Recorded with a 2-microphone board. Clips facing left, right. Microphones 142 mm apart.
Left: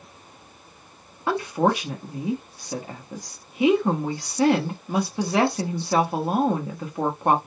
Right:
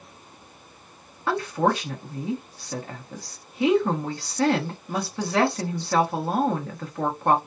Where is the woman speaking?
15° left (ahead or behind), 0.8 m.